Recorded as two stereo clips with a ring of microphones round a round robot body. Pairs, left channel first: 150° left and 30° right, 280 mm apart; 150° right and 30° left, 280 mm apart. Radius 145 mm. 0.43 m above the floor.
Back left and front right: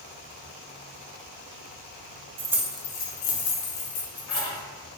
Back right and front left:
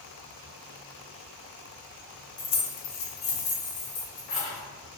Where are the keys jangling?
85° right, 0.5 m; by 4.6 s 150° left, 1.4 m.